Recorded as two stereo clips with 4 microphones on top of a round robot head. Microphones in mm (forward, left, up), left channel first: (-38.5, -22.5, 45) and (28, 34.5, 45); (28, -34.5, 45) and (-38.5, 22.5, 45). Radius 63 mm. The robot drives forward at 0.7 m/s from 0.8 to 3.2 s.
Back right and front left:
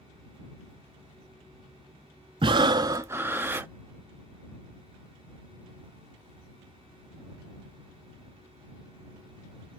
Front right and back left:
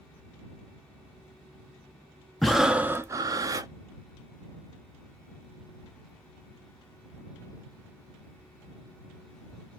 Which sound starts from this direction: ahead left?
Breathing, at 2.4 s.